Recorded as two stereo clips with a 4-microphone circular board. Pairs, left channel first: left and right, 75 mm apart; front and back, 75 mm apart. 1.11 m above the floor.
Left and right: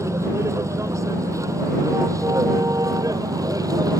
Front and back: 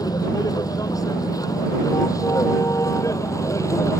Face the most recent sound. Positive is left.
turn(degrees=-50)